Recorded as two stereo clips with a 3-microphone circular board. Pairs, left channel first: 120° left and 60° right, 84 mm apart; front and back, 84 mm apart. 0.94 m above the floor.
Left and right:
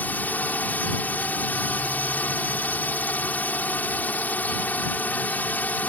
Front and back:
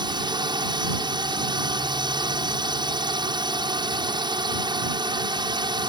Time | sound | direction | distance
0.0 | a drone | 170° right | ?